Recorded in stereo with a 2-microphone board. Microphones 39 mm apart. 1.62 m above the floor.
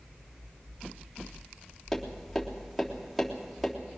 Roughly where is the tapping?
Centre.